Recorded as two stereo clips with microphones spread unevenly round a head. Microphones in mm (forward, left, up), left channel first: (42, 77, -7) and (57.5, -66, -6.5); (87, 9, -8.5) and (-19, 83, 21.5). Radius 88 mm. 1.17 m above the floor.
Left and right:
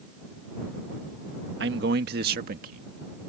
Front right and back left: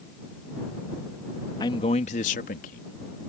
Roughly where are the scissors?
I don't hear scissors.